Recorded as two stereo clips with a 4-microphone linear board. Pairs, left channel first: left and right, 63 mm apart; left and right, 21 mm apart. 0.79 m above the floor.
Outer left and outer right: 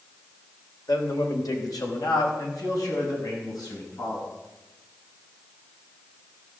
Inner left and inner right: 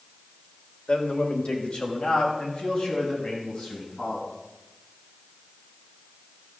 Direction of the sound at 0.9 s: 75° left (ahead or behind).